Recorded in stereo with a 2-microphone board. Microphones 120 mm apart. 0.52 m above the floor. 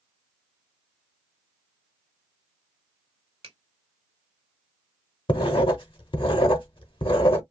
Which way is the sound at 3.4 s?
50° right (ahead or behind).